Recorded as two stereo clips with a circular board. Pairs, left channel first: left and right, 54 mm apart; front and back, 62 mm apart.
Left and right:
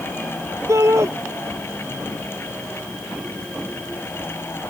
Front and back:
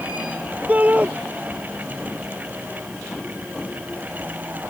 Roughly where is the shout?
Behind right.